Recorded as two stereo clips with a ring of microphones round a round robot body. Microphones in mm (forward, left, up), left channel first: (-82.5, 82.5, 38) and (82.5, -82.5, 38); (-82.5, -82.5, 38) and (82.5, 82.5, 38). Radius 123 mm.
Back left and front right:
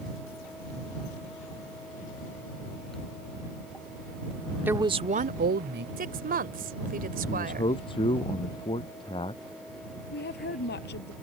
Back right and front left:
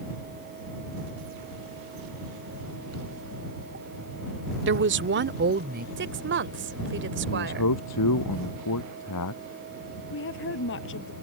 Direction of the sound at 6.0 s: 5° left.